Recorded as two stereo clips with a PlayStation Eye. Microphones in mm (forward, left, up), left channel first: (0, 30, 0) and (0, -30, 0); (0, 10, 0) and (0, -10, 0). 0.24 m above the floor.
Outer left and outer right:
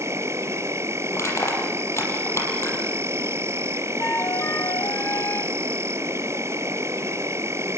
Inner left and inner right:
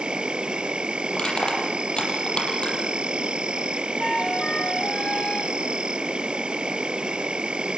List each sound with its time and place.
0.0 s an insect: 50° right (ahead or behind), 1.0 m
1.1 s crushing: 50° left (ahead or behind), 6.5 m
4.0 s a flute: 50° left (ahead or behind), 1.3 m